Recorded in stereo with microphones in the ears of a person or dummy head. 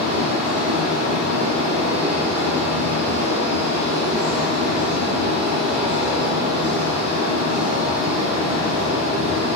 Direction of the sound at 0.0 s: 40° right (ahead or behind).